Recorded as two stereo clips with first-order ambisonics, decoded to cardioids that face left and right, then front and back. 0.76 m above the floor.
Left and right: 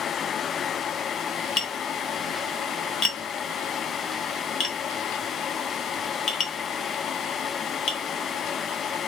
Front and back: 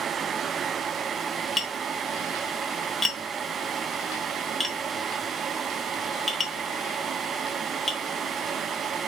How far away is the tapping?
About 0.7 m.